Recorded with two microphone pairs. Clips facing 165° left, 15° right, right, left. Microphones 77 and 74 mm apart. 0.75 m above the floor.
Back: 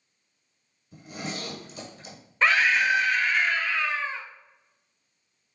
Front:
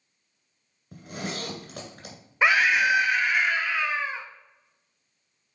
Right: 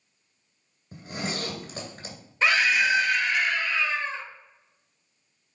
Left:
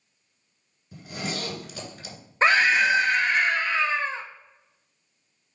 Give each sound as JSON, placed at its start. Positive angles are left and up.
{"t": 0.9, "sound": "a zipper", "azimuth_deg": -35, "distance_m": 1.9}
{"t": 2.4, "sound": "a scream", "azimuth_deg": 55, "distance_m": 0.5}